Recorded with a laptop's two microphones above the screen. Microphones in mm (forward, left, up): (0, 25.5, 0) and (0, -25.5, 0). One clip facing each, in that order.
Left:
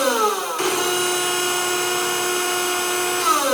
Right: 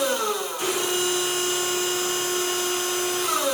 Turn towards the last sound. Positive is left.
turn(degrees=70)  # may be behind; listen again after turning